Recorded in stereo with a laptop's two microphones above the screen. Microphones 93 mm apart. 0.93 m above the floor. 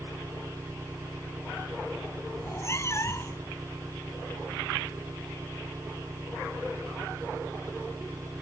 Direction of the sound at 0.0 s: 35° right (ahead or behind).